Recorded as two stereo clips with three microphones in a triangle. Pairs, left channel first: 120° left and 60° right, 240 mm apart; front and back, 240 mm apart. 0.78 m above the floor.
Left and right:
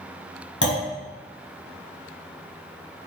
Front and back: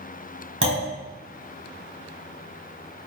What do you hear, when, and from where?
0.6 s a clunk: 150° left, 4 m